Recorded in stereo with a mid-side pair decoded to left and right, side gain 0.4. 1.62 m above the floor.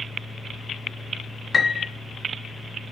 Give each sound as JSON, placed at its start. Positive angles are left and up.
{"t": 0.0, "sound": "a fan", "azimuth_deg": 20, "distance_m": 2.0}
{"t": 1.5, "sound": "a piano", "azimuth_deg": 35, "distance_m": 1.4}